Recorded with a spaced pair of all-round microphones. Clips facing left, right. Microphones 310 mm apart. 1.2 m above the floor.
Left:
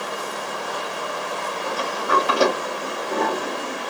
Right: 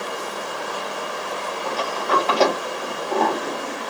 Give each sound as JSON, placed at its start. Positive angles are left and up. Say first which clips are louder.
{"t": 1.6, "sound": "a sliding door", "louder": "right 1 dB", "side_deg": 15, "distance_m": 1.7}